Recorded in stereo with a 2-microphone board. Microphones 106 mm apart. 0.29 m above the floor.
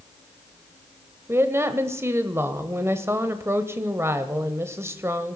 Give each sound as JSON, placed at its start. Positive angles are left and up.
{"t": 1.3, "sound": "a woman speaking", "side_deg": -25, "distance_m": 1.0}